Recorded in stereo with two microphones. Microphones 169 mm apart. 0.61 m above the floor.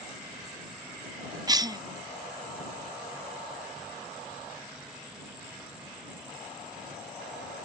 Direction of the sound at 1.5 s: 25° right (ahead or behind).